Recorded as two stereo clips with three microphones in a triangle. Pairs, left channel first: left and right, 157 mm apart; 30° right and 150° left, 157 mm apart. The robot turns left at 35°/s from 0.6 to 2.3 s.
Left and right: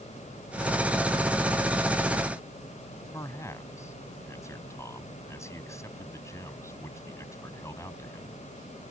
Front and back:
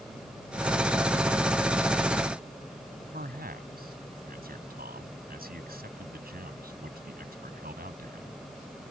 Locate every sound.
3.1 s a man speaking: 160° left